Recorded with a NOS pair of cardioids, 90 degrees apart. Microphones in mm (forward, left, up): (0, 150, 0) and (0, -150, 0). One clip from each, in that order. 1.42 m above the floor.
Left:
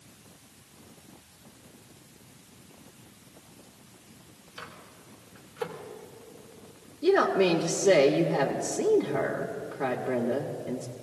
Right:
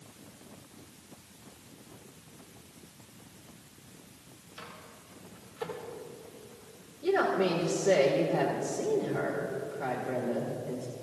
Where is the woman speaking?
40° left, 1.7 m.